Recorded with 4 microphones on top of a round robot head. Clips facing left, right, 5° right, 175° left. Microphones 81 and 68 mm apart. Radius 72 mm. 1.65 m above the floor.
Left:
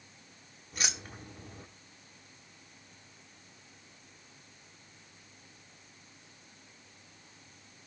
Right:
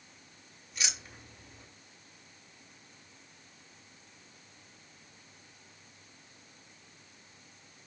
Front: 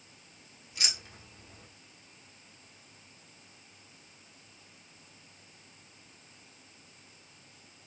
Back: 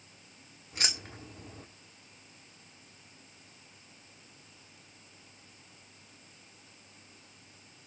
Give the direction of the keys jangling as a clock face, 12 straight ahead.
8 o'clock.